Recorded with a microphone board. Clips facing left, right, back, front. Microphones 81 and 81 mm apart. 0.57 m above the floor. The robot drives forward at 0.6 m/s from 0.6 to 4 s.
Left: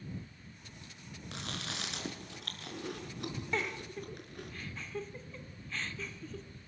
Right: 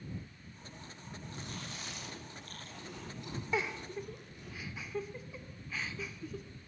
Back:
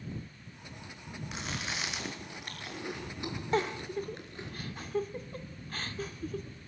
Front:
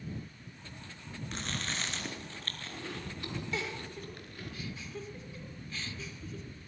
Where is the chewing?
95° left, 5 m; by 4.5 s 115° left, 5.5 m.